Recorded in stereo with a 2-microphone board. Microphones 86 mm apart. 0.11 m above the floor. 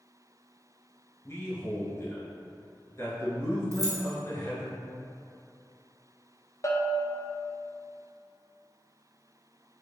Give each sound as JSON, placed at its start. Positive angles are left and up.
{"t": 1.2, "sound": "a man speaking", "side_deg": 35, "distance_m": 1.3}
{"t": 3.7, "sound": "keys jangling", "side_deg": -40, "distance_m": 1.1}
{"t": 6.6, "sound": "a bell", "side_deg": 40, "distance_m": 0.5}